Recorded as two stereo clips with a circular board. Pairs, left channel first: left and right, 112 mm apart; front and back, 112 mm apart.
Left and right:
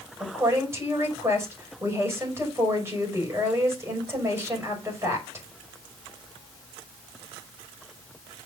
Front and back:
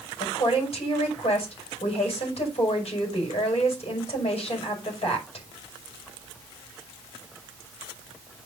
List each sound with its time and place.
0.2 s a woman speaking: 25° right, 5.5 m